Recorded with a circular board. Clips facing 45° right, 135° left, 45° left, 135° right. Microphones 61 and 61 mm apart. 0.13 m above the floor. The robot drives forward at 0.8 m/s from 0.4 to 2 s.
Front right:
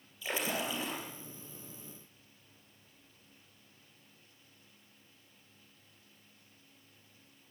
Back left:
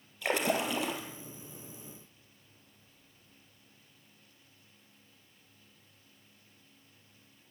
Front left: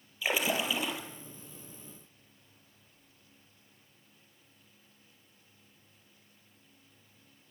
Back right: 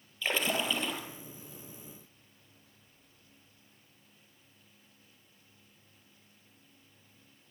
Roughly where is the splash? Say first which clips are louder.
Back left 6 dB, front left 1 dB; behind left.